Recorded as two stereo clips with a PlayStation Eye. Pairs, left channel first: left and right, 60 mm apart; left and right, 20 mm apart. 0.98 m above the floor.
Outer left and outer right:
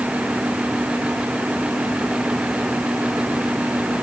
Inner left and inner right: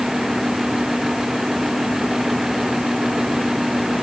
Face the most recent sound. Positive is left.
No sound to turn to.